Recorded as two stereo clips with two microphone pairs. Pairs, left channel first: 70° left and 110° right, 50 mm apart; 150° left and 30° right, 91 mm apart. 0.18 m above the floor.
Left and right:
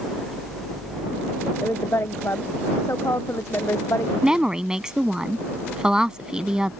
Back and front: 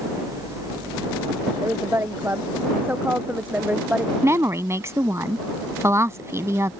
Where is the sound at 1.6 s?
30° left; by 4.1 s 45° left.